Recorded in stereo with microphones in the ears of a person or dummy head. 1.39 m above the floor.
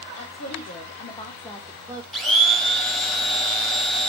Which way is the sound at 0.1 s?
50° left (ahead or behind).